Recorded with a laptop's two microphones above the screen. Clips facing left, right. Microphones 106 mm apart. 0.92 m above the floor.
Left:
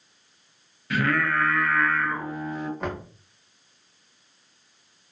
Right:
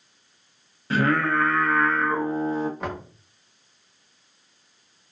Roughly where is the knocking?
Centre.